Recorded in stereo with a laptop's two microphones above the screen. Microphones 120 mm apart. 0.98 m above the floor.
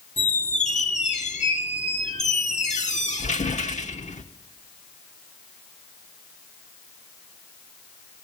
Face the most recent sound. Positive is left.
turn(degrees=75)  # may be behind; listen again after turning